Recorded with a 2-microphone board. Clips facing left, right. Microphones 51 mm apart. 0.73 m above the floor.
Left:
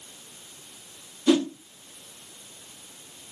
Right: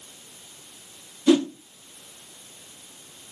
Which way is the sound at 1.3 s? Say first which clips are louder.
Right 2 dB; 5° right (ahead or behind).